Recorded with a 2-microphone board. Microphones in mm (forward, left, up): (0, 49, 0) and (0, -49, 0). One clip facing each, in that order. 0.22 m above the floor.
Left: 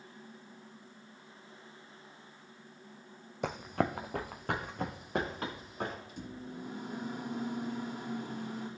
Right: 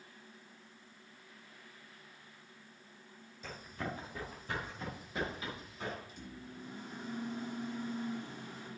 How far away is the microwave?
About 3 m.